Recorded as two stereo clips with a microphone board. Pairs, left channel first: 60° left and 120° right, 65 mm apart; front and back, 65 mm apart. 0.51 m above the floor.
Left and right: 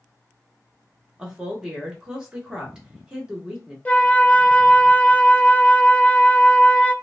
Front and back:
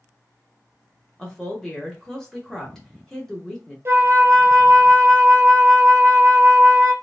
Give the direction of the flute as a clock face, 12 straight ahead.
8 o'clock.